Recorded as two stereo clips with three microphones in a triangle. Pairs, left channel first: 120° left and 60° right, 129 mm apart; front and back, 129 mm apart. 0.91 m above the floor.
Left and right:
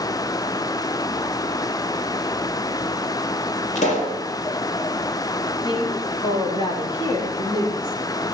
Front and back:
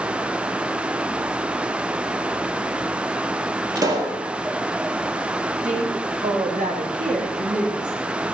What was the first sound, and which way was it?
A pop, 120° left.